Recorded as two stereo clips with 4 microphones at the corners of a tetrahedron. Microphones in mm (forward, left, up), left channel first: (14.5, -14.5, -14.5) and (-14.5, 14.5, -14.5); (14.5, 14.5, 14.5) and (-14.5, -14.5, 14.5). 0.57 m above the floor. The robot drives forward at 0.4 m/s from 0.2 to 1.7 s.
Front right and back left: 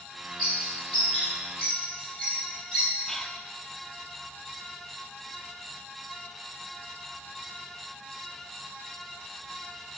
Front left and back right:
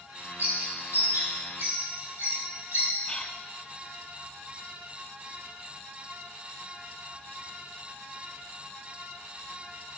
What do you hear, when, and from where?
0.4 s a bird: 130° right, 5.5 m; by 2.9 s 135° right, 5.5 m
3.1 s whispering: 25° left, 0.6 m